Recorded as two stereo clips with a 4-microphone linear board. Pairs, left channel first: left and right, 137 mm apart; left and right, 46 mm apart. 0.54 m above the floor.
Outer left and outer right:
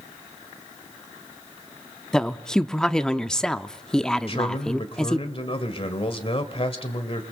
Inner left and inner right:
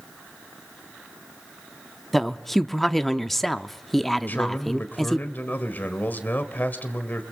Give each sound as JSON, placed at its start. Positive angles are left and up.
{"t": 2.1, "sound": "a woman speaking", "side_deg": 5, "distance_m": 0.6}
{"t": 4.3, "sound": "a man speaking", "side_deg": 45, "distance_m": 1.9}